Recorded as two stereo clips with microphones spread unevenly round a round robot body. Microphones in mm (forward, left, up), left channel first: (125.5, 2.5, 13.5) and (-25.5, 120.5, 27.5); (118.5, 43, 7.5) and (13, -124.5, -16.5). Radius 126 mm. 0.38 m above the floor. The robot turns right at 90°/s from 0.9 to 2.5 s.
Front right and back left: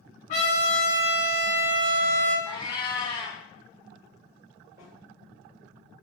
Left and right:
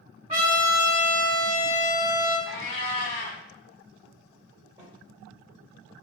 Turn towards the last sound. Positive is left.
turn(degrees=-160)